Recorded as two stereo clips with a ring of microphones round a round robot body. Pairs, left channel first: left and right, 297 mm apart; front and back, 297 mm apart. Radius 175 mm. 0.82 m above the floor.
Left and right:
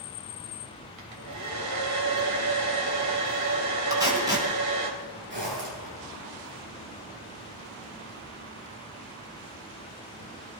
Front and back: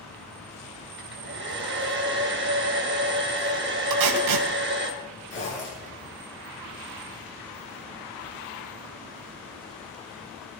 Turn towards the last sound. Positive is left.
turn(degrees=-35)